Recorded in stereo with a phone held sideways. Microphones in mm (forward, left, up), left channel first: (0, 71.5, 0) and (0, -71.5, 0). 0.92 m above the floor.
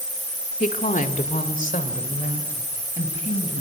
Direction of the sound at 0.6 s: 65° left (ahead or behind).